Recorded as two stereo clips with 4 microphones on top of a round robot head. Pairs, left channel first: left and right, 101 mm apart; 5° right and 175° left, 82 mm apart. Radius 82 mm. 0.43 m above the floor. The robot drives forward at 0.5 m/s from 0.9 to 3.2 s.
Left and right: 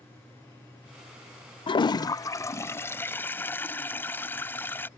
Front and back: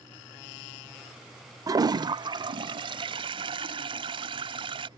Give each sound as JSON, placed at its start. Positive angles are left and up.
{"t": 1.7, "sound": "a toilet flushing", "azimuth_deg": 130}